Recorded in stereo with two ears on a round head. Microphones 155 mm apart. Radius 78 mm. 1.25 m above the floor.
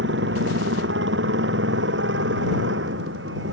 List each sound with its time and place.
0.0 s a motorcycle: 70° right (ahead or behind); by 3.5 s 75° right (ahead or behind)